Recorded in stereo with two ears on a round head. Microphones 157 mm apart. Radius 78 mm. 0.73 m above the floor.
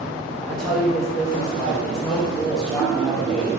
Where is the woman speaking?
5° left (ahead or behind), 0.8 m.